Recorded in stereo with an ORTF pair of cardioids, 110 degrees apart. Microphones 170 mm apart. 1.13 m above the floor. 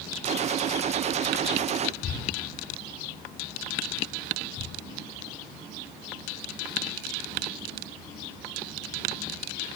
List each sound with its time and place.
0.2 s a gunshot: 40° right, 0.8 m